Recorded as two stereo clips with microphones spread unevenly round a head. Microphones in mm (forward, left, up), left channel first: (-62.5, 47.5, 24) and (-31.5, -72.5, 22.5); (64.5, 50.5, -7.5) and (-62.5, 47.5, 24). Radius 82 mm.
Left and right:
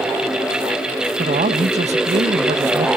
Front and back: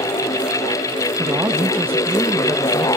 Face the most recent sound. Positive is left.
turn(degrees=-105)